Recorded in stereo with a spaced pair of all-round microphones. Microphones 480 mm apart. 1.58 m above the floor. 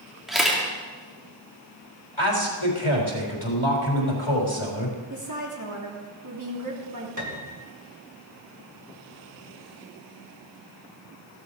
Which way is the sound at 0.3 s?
Centre (ahead or behind).